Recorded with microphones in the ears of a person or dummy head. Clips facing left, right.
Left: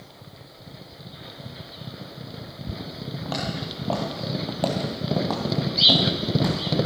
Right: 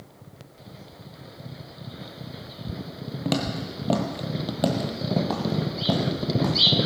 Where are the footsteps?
30° right (ahead or behind), 1.7 m; by 6.6 s 10° left (ahead or behind), 3 m.